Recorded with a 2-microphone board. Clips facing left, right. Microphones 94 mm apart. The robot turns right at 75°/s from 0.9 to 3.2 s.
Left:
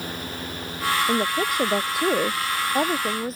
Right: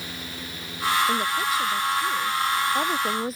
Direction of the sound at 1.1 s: 20° left.